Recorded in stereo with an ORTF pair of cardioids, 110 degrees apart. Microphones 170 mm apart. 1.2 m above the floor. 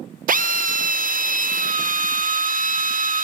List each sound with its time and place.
0.3 s a drill: 50° right, 0.7 m